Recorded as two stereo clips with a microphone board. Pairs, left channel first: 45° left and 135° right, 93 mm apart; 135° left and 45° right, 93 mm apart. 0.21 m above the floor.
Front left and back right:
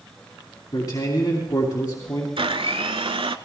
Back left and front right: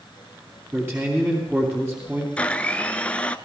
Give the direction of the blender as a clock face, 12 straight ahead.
5 o'clock.